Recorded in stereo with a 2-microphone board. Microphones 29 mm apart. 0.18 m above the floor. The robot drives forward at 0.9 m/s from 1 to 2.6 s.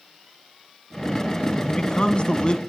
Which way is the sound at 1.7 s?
30° left (ahead or behind).